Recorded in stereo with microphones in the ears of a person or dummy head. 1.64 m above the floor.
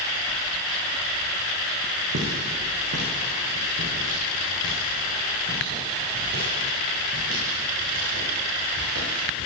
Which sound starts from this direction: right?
Footsteps, at 2.1 s.